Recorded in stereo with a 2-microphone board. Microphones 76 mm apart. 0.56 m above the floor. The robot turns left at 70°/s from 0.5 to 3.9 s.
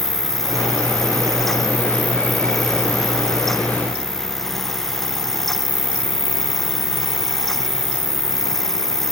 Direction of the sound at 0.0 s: 50° right.